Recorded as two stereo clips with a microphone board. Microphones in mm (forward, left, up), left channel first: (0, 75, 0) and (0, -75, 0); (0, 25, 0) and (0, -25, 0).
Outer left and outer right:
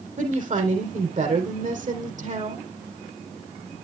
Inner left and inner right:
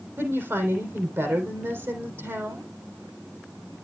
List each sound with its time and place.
0.2 s a woman speaking: 60° right (ahead or behind), 3.5 m